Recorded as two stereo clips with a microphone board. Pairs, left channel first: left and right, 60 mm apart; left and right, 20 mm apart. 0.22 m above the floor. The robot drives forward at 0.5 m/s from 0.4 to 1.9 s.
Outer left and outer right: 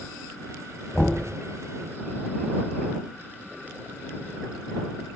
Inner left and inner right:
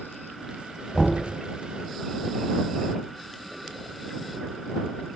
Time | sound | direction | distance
0.9 | knocking | 20° left (ahead or behind) | 0.7 m